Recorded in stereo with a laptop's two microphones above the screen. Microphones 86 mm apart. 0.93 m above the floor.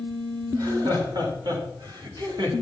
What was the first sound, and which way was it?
Laughter, 50° right (ahead or behind).